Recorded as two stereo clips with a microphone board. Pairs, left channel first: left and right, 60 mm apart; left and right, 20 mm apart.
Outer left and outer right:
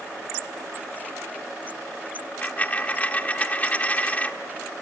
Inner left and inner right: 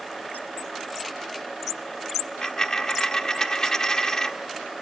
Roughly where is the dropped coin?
Left.